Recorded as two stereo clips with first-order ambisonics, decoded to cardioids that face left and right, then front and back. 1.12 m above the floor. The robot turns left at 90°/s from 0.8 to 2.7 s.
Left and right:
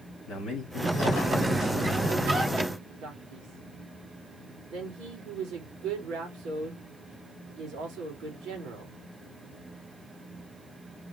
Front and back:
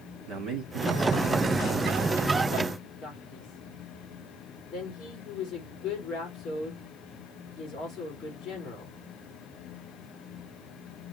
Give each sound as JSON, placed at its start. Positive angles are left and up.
{"t": 0.3, "sound": "a man speaking", "azimuth_deg": 140, "distance_m": 2.5}
{"t": 3.0, "sound": "a man speaking", "azimuth_deg": -55, "distance_m": 2.5}